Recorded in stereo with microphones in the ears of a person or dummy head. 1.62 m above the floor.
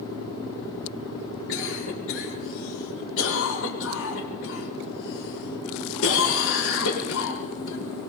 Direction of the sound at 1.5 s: 75° left (ahead or behind).